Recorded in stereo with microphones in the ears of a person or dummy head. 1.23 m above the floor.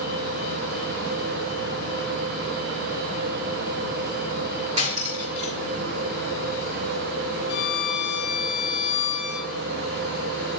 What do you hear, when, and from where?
4.8 s cutlery clinking: 40° right (ahead or behind), 3 m
7.5 s a violin: 65° left (ahead or behind), 2 m